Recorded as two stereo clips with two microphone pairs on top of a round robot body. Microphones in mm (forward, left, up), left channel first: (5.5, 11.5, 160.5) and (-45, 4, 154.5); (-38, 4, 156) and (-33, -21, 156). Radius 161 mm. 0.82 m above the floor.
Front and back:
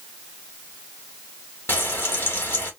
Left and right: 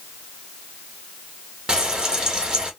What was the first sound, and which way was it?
Frying, 25° right.